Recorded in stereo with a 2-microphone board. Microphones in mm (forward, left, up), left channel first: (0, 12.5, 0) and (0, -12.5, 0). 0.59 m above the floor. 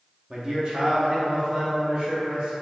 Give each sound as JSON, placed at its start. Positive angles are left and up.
{"t": 0.3, "sound": "a man speaking", "side_deg": -25, "distance_m": 0.6}